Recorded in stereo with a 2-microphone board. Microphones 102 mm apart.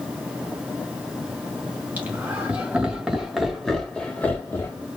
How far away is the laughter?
About 2 m.